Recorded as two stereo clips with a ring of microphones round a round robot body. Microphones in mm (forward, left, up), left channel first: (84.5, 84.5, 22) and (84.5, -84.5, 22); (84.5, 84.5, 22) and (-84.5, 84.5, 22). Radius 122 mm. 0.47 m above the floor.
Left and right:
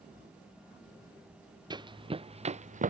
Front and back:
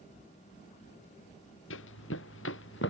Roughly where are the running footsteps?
Ahead right.